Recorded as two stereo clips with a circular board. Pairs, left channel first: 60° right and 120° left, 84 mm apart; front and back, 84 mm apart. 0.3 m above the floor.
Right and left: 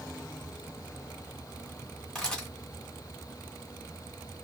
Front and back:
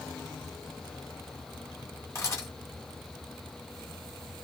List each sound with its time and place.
2.1 s a camera shutter: 15° left, 1.3 m